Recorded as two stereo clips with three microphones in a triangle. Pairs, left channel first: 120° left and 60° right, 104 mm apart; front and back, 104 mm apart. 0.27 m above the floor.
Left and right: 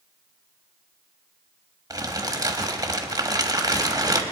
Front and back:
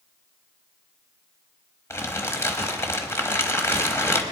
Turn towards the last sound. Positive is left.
turn(degrees=-45)